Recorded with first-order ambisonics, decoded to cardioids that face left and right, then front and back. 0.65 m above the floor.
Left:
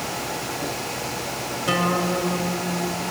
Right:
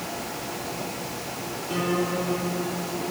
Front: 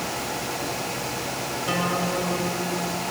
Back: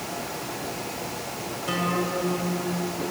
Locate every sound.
1.7 s a guitar: 85° left, 2.5 m